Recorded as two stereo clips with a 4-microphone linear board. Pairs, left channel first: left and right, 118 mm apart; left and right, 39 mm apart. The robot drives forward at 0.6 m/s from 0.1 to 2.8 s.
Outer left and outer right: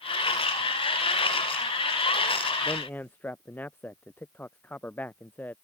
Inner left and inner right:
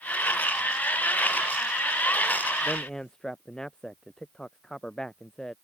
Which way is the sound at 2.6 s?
15° left (ahead or behind).